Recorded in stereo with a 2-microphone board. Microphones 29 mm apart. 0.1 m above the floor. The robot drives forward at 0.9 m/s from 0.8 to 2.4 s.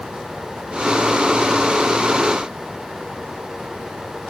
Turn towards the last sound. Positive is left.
No sound to turn to.